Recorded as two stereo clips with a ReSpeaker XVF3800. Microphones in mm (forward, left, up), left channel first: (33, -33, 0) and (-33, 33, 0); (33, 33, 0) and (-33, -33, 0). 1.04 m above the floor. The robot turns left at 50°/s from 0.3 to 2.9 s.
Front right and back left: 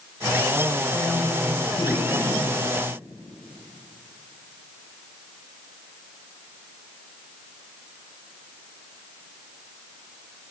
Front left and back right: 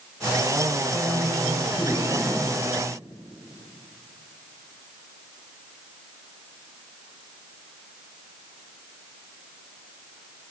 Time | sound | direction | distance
0.9 | a man speaking | 55° left | 6 m